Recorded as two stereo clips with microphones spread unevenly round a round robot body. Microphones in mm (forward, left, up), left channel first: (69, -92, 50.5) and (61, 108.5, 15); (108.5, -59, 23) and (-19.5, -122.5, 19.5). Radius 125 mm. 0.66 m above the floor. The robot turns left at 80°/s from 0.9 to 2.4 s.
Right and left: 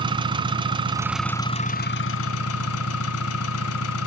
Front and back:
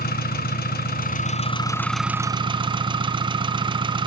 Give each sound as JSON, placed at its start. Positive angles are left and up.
{"t": 0.0, "sound": "an engine running", "azimuth_deg": 25, "distance_m": 1.7}